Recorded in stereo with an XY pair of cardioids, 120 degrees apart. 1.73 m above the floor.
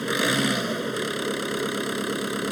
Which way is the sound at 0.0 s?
5° right.